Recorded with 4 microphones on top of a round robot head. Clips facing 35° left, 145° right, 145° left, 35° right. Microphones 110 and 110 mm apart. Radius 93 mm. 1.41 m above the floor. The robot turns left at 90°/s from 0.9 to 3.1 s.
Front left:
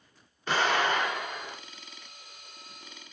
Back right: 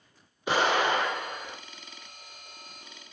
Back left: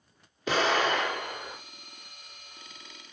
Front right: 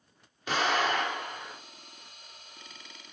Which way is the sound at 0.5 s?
135° left.